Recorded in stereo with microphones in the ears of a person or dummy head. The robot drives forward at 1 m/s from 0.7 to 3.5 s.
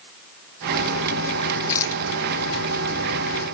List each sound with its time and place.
1.7 s a rattle: 20° left (ahead or behind)